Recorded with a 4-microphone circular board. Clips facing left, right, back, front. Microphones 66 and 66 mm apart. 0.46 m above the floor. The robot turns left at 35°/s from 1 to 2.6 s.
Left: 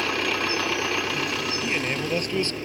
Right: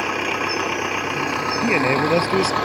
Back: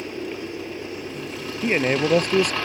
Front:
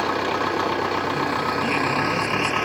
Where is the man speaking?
135° right; by 2.5 s 165° right.